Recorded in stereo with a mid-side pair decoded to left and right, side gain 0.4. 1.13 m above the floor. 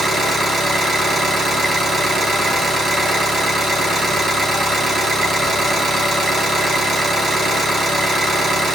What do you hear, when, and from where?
0.0 s an engine running: 40° right, 3.5 m